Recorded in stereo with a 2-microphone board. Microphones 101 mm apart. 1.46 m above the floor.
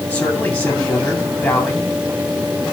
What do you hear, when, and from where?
0.1 s a man speaking: 15° left (ahead or behind), 3.5 m